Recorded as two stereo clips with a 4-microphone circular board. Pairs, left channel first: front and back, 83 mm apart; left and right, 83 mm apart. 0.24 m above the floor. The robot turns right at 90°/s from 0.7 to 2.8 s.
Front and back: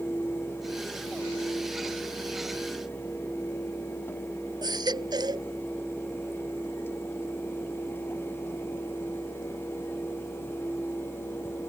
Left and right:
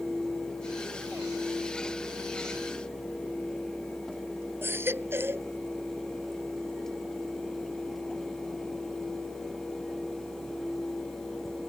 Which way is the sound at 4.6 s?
150° right.